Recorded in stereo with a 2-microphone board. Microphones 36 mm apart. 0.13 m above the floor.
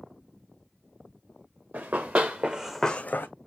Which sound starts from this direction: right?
Running footsteps, at 1.7 s.